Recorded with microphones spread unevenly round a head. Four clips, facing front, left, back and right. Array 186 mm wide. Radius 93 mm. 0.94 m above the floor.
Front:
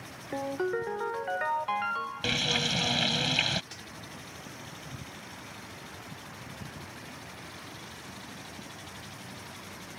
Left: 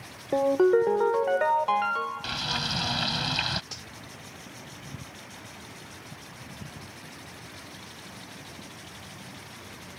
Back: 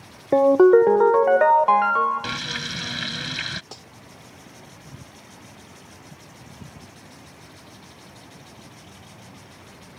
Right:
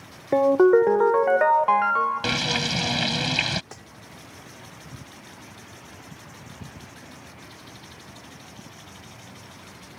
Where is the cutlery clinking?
145° right.